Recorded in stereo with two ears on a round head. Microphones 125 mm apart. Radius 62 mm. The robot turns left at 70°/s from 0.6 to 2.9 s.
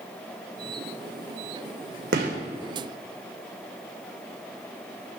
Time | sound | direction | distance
2.1 | a gunshot | 85° right | 3.5 m